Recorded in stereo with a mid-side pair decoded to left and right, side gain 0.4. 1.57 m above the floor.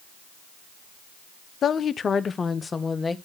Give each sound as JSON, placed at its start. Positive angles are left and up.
{"t": 1.6, "sound": "a woman speaking", "azimuth_deg": 60, "distance_m": 0.6}